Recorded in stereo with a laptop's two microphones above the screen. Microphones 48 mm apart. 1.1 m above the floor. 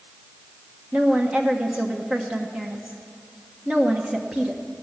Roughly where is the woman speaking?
Right.